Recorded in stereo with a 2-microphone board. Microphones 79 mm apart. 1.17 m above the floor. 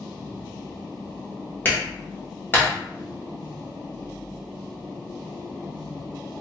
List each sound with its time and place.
1.6 s a clap: 25° left (ahead or behind), 1.0 m